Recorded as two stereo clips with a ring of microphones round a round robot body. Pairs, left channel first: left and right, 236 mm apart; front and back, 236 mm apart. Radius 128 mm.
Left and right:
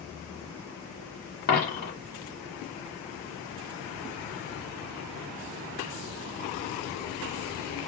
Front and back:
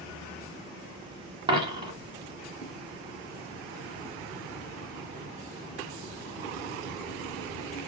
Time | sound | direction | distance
1.5 | a dropped coin | 120° left | 1.0 m